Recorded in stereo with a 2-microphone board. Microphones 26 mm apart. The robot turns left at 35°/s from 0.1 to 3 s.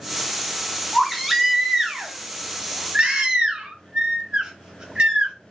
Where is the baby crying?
10° left, 0.8 m; by 5.3 s 60° right, 0.8 m.